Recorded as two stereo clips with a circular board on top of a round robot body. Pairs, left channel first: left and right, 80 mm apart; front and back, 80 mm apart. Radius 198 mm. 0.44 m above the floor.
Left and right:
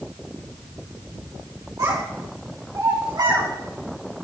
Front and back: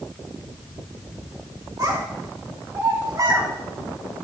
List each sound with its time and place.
1.8 s a child speaking: 135° right, 4 m; by 3.5 s 130° right, 4.5 m